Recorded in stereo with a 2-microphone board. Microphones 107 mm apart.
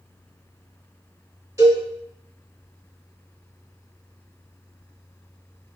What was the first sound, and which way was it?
A cowbell, 30° right (ahead or behind).